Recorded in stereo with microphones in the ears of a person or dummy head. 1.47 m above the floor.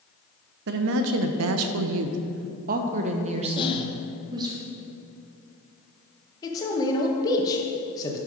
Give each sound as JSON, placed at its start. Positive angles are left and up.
{"t": 0.7, "sound": "a woman speaking", "side_deg": -60, "distance_m": 0.9}
{"t": 3.6, "sound": "whispering", "side_deg": 30, "distance_m": 0.9}
{"t": 6.4, "sound": "a man speaking", "side_deg": 25, "distance_m": 1.5}